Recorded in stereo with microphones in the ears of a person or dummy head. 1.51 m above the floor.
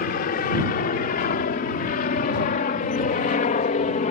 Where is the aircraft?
45° left (ahead or behind); by 4.1 s 35° left (ahead or behind).